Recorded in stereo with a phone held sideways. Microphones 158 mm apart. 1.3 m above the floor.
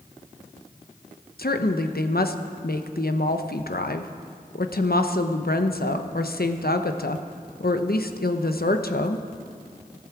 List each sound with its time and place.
1.4 s a woman speaking: 75° left (ahead or behind), 0.9 m